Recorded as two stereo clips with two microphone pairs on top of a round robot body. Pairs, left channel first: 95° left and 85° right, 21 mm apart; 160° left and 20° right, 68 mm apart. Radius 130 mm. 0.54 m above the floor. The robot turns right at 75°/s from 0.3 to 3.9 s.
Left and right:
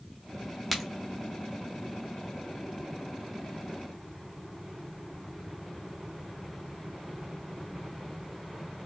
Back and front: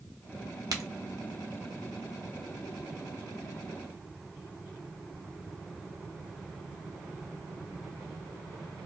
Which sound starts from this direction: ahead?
A crack, at 0.7 s.